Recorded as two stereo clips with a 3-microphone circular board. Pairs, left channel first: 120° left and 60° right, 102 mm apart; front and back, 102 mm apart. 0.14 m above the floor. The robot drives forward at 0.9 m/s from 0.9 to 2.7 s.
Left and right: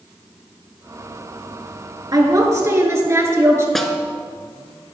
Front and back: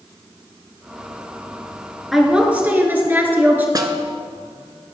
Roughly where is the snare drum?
Behind right.